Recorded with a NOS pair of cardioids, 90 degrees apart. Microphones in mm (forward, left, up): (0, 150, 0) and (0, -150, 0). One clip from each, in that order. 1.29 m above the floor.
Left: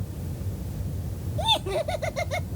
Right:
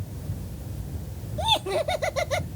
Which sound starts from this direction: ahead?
Laughter, at 1.4 s.